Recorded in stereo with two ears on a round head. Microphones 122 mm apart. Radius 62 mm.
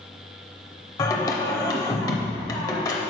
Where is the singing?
25° left (ahead or behind), 0.7 m.